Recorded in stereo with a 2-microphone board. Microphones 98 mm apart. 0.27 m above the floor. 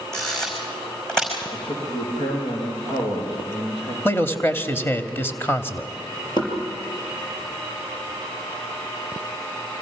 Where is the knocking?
50° left (ahead or behind), 5 m.